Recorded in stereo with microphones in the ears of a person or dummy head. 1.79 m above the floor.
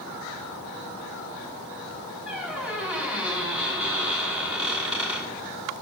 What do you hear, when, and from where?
2.3 s a squeak: 5° right (ahead or behind), 1.5 m